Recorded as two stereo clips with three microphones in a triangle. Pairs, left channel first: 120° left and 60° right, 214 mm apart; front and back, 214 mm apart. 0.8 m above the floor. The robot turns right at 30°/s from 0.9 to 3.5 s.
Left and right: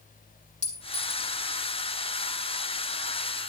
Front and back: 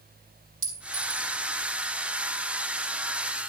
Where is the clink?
175° left, 4 m; by 1.3 s 170° right, 4 m.